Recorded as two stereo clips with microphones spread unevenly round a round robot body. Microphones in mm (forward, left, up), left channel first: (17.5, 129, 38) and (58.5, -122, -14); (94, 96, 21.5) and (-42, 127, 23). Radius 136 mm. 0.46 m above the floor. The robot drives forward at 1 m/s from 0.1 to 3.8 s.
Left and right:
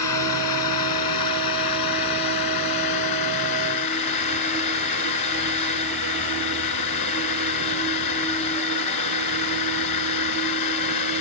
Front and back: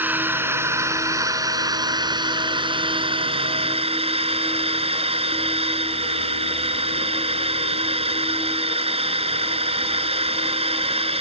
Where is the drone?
90° left; by 11.2 s 120° left.